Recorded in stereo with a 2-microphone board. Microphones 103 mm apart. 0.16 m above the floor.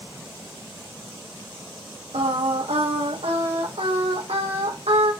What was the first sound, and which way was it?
Singing, 80° right.